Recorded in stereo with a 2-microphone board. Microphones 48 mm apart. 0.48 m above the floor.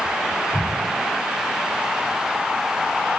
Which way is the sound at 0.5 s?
70° left (ahead or behind).